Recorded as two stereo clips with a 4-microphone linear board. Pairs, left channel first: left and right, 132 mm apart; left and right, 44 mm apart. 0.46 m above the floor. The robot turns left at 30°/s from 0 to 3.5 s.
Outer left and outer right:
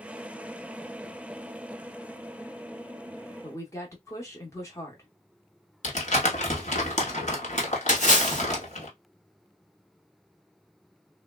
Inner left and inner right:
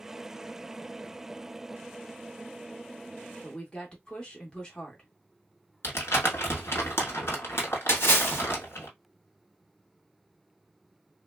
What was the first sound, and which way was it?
A woman speaking, 25° left (ahead or behind).